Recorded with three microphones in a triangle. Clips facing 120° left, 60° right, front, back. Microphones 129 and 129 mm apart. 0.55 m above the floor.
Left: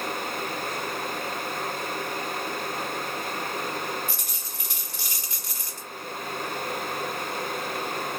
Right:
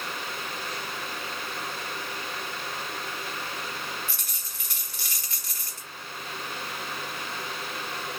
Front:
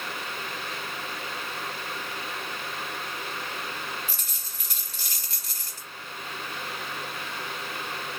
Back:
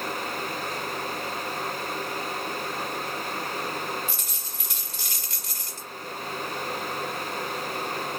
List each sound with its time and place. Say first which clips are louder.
4.1 s a dropped coin: left 5 dB, back 4 dB; 50° left, 1.2 m